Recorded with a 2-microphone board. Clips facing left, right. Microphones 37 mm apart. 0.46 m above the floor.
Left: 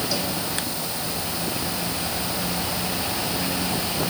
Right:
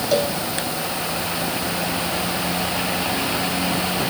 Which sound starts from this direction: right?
A cowbell, at 0.1 s.